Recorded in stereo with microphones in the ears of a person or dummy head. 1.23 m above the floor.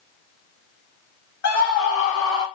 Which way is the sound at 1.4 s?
45° left (ahead or behind).